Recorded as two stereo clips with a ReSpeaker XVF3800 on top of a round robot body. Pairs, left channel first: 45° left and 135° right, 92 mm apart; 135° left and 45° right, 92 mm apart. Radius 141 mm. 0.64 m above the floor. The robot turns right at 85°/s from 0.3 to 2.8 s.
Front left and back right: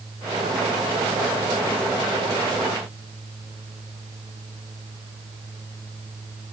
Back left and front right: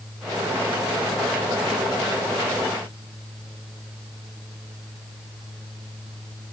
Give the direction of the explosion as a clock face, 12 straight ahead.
No explosion in this recording.